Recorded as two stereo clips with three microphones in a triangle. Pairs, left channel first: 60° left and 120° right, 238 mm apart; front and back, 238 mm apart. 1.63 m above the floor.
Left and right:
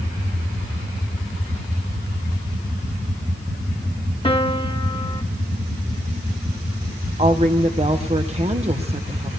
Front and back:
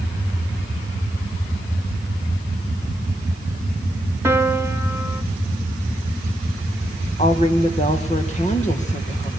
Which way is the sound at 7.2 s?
55° right.